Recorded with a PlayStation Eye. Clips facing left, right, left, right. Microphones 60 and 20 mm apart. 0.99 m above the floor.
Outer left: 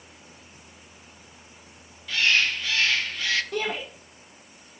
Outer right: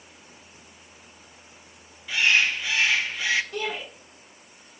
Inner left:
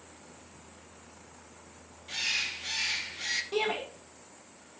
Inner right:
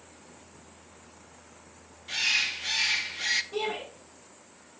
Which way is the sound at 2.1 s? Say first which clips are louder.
Outer right 1 dB, inner right 5 dB; 15° right (ahead or behind).